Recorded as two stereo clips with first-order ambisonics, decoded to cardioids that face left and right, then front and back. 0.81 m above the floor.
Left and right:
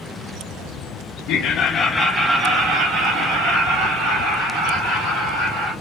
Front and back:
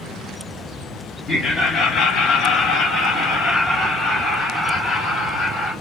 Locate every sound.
1.3 s laughter: 70° left, 0.8 m; by 5.7 s 70° right, 3.5 m